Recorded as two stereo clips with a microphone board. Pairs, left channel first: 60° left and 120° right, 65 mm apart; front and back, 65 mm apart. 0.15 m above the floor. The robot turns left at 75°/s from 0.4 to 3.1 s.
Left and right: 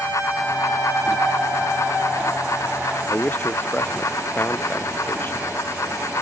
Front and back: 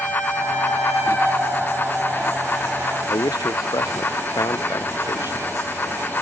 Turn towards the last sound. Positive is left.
turn(degrees=0)